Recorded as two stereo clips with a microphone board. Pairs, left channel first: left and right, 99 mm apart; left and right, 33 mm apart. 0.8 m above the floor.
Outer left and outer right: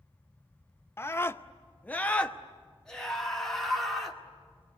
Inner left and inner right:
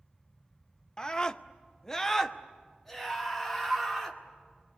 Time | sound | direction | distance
1.0 | a scream | 25° left (ahead or behind) | 0.6 m